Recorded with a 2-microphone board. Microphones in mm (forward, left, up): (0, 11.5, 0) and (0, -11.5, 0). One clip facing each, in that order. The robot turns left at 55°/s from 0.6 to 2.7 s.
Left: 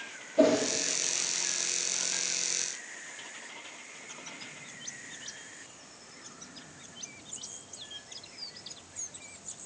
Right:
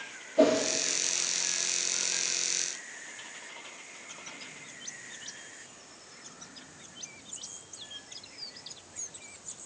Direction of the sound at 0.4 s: 5° right (ahead or behind).